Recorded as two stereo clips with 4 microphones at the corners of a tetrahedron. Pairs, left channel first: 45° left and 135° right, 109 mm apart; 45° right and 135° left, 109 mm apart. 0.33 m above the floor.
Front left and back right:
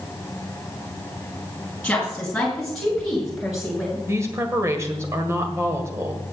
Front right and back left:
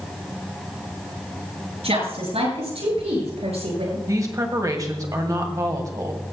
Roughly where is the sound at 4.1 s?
Behind.